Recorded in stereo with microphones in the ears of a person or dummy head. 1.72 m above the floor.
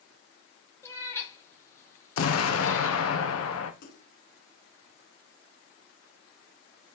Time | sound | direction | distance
0.8 | a cat meowing | 15° left (ahead or behind) | 1.8 m
2.2 | an explosion | 90° left | 1.4 m
3.8 | a splash | 50° left (ahead or behind) | 1.6 m